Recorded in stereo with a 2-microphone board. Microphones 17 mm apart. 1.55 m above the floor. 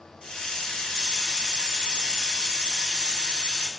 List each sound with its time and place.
0.2 s a hiss: 70° left (ahead or behind), 1.3 m